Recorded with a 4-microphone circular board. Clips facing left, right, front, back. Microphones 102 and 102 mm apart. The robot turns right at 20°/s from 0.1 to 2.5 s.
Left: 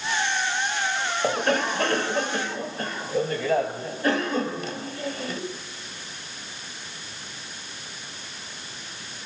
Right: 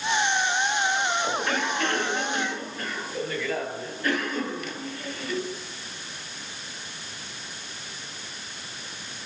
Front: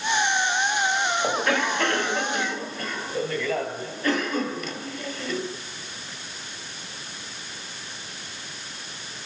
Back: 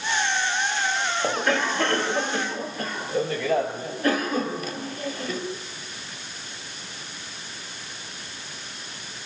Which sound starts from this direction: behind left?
A cough, at 1.2 s.